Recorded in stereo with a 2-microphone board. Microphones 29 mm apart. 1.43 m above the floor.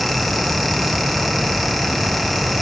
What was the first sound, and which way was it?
Only background noise.